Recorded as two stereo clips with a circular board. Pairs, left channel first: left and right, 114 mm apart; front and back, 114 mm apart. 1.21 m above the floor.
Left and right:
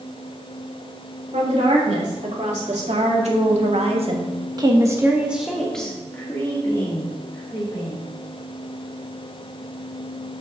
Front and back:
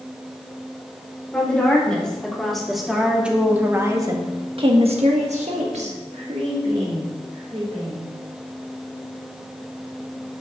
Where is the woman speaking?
80° right, 4 m; by 8.0 s 145° left, 4 m.